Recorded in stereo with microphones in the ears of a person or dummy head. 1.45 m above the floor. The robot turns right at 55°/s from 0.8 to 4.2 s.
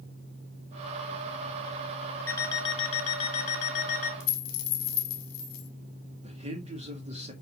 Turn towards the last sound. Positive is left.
turn(degrees=-35)  # may be behind; listen again after turning